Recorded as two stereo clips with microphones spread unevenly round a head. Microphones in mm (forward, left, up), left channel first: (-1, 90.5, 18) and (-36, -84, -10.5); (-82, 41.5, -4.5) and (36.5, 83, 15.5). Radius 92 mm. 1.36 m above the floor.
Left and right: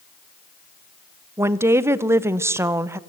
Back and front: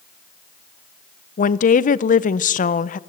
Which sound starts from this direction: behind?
A woman speaking, at 1.4 s.